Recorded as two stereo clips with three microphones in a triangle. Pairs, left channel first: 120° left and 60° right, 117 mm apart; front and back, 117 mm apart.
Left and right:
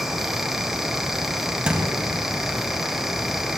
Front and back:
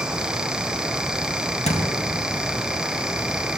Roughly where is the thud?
Ahead.